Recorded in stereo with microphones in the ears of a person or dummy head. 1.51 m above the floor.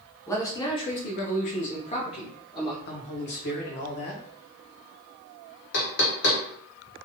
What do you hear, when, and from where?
0.3 s a man speaking: 15° left (ahead or behind), 0.8 m; by 2.8 s 25° left (ahead or behind), 1.2 m
2.9 s a man speaking: 55° left (ahead or behind), 0.7 m
5.7 s knocking: 55° left (ahead or behind), 0.6 m